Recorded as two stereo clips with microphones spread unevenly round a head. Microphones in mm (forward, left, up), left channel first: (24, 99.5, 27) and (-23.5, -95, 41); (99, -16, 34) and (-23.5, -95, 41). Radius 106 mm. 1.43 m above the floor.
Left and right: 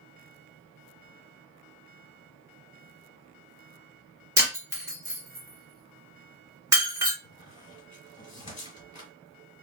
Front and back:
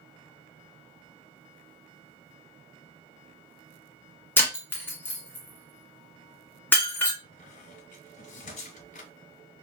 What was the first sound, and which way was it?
Breaking glass, 40° right.